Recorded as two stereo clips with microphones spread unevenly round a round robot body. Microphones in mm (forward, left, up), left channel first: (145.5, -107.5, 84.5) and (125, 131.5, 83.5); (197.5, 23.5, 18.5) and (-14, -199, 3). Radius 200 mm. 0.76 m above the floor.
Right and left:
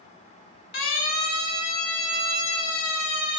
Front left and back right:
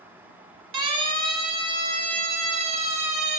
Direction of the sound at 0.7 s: 110° right.